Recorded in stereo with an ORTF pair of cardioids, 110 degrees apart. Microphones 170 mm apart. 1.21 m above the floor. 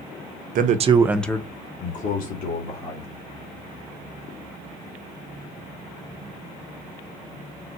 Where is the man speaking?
55° right, 0.8 m; by 3.1 s 65° left, 2 m.